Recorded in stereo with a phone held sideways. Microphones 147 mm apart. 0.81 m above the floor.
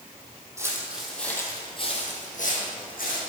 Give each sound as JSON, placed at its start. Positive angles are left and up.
{"t": 0.6, "sound": "footsteps", "side_deg": -20, "distance_m": 2.0}